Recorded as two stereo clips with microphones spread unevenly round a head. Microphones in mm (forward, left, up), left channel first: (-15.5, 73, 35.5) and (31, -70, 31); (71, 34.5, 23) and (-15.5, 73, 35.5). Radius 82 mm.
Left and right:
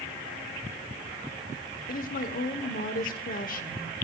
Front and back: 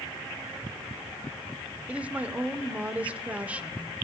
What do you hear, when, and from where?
1.9 s a woman speaking: 80° left, 1.0 m